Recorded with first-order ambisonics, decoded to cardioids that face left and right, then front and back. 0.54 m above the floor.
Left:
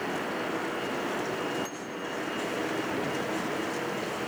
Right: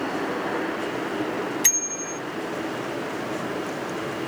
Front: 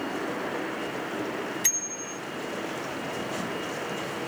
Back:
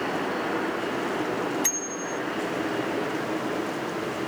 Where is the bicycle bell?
85° right.